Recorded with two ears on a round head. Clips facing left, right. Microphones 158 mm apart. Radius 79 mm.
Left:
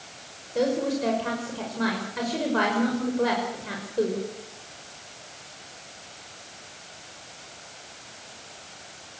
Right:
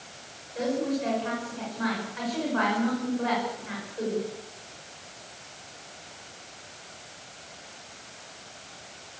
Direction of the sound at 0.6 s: 55° left (ahead or behind).